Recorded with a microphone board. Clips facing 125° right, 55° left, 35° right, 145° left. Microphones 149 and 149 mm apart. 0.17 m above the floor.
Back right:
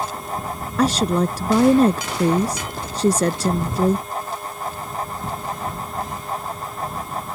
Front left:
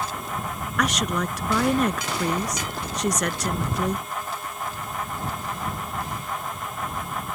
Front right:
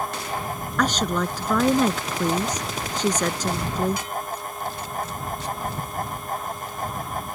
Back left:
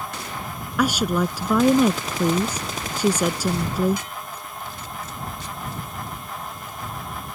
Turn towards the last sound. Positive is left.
turn(degrees=-140)